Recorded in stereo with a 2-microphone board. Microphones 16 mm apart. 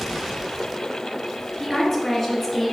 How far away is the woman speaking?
About 2.5 m.